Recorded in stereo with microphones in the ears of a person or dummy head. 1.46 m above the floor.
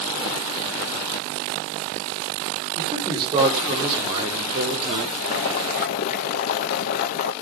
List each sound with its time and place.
2.8 s a man speaking: 30° right (ahead or behind), 6 m; by 5.1 s 35° right (ahead or behind), 4 m
5.2 s boiling: 60° left (ahead or behind), 1.3 m